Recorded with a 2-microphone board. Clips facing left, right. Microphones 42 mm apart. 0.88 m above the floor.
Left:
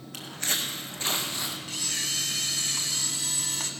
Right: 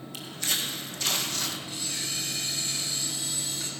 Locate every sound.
0.1 s footsteps: 50° left (ahead or behind), 2 m; by 1.6 s 15° left (ahead or behind), 1.5 m
1.7 s a camera shutter: 65° left (ahead or behind), 1.5 m